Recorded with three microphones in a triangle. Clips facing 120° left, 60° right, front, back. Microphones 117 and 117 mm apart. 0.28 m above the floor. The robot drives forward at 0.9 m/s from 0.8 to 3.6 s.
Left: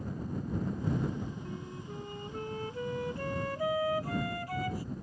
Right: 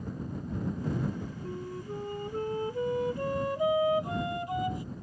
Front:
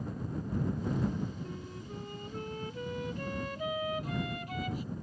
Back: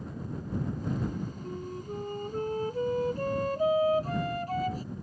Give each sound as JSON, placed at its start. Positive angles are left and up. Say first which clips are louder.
{"t": 1.4, "sound": "a flute", "louder": "right 5 dB, back 6 dB", "azimuth_deg": -120}